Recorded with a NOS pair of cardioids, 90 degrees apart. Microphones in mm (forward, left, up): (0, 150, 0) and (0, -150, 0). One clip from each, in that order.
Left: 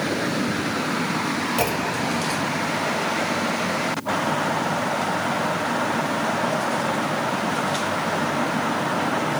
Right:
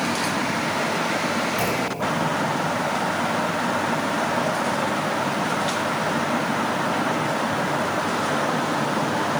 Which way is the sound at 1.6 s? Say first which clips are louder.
Even; 50° left.